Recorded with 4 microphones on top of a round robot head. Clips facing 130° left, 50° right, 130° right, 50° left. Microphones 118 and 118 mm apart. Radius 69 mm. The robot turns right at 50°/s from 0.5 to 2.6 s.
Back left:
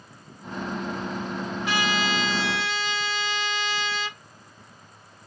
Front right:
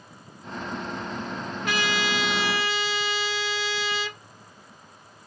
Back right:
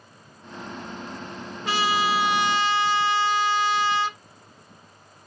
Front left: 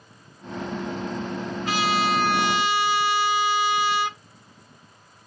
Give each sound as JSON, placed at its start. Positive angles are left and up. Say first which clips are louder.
{"t": 1.6, "sound": "a trumpet", "louder": "back left 1 dB, even", "azimuth_deg": -75, "distance_m": 1.7}